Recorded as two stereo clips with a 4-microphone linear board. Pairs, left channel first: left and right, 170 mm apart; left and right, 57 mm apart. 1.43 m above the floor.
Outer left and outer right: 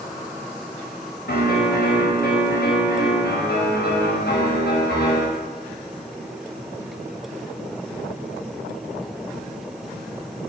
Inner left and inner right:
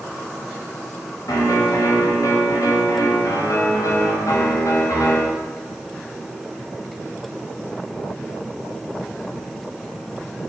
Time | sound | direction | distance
1.3 | a piano | 70° left (ahead or behind) | 5 m